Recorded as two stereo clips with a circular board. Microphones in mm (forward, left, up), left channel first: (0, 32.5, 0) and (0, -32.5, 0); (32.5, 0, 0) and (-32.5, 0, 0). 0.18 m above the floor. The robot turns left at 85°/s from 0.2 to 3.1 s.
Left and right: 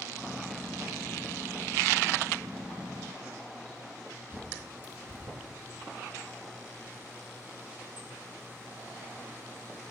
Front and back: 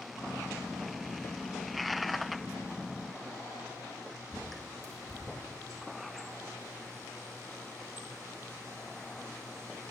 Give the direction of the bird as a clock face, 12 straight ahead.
5 o'clock.